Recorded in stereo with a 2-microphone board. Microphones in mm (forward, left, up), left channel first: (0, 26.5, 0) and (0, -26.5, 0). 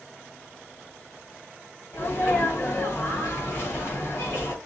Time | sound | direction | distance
1.9 | a sneeze | 50° left (ahead or behind) | 1.9 m